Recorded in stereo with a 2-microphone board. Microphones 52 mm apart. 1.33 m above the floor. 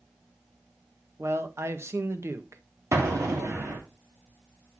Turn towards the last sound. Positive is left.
turn(degrees=-75)  # may be behind; listen again after turning